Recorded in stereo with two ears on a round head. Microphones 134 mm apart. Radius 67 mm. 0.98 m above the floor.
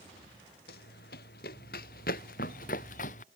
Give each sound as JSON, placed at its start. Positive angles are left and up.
{"t": 0.7, "sound": "running footsteps", "side_deg": 70}